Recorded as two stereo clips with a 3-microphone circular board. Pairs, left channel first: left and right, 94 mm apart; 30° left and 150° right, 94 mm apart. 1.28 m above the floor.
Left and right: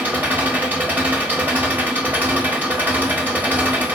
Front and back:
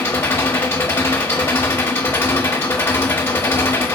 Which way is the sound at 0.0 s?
25° right.